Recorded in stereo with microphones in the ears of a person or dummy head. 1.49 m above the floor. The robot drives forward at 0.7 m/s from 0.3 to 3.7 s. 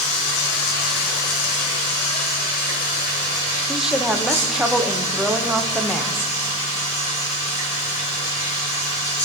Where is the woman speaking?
5° right (ahead or behind), 1.0 m.